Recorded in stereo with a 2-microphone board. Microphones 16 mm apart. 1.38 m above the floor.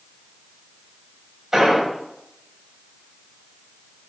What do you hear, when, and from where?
1.5 s an explosion: 25° right (ahead or behind), 6 m